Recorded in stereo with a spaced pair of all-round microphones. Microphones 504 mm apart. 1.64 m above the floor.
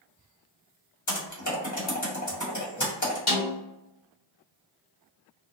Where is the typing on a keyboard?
35° left (ahead or behind), 1.1 m.